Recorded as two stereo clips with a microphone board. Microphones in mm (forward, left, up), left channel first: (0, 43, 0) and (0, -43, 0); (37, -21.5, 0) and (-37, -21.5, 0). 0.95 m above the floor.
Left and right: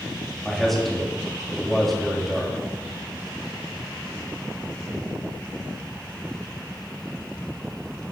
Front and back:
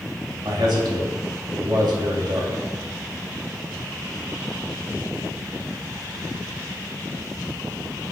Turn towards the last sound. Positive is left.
turn(degrees=180)